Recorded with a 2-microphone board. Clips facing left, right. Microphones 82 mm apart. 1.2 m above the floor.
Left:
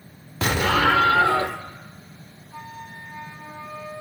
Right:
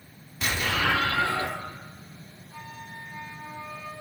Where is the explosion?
70° left (ahead or behind), 1.7 m.